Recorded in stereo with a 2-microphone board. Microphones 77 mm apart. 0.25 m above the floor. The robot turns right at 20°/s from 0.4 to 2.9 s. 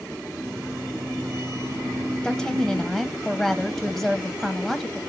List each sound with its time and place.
2.2 s a woman speaking: 10° left (ahead or behind), 1.1 m; by 5.0 s centre (ahead or behind), 1.1 m